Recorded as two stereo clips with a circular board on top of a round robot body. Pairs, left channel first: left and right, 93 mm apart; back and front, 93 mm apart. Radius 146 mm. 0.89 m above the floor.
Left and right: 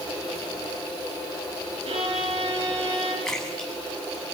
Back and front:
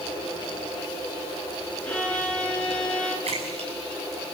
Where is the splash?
5° left, 8 m.